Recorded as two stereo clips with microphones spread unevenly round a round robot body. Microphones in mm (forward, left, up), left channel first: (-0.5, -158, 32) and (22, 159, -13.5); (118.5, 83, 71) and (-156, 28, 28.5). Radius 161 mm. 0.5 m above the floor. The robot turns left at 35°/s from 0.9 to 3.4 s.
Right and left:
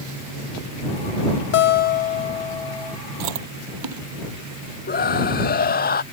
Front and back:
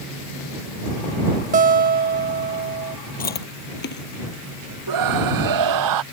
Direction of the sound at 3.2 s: 70° left.